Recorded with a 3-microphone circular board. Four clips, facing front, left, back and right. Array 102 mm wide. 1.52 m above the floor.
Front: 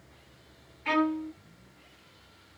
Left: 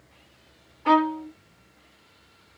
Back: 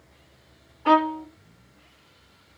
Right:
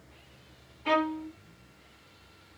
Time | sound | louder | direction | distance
0.8 | a violin | left 7 dB, back 7 dB | 155° left | 1.8 m